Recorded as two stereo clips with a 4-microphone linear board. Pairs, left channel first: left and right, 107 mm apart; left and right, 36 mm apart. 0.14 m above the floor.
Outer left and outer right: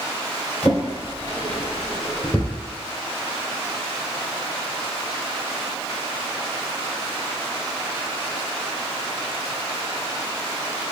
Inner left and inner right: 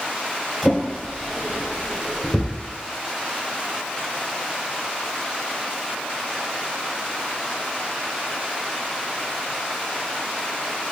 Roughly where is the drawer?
Centre.